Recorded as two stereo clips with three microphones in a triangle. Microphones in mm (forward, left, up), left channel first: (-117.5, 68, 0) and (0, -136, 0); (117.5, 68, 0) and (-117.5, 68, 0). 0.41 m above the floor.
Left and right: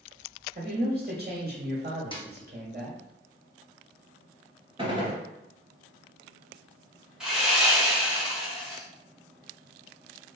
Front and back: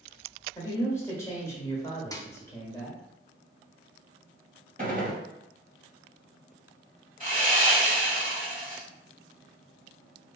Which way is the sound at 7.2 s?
145° right.